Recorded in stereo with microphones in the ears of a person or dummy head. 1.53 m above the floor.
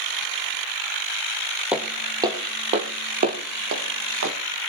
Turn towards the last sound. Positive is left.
turn(degrees=-55)  # may be behind; listen again after turning